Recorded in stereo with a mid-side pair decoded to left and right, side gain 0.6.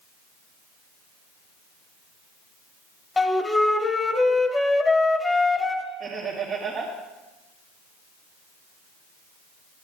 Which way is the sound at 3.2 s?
10° left.